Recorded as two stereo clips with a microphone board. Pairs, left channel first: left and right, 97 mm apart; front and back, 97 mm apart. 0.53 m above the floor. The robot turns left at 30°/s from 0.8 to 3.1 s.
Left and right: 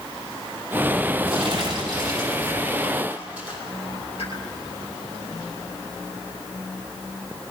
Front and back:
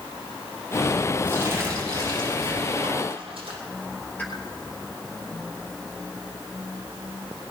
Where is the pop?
75° left, 4.5 m.